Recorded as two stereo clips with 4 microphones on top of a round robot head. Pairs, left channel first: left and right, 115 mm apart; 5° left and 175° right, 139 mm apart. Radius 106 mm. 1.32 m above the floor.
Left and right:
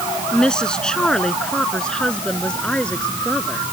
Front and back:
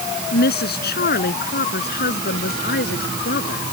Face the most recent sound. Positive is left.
turn(degrees=10)